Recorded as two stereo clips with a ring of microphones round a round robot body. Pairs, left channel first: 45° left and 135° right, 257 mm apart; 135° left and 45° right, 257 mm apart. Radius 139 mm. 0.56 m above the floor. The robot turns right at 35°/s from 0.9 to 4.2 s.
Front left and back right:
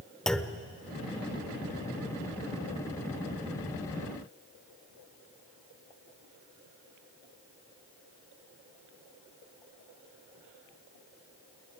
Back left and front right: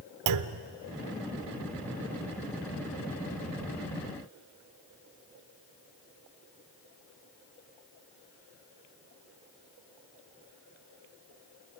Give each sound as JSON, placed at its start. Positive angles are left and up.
{"t": 0.3, "sound": "a clunk", "azimuth_deg": -45, "distance_m": 0.9}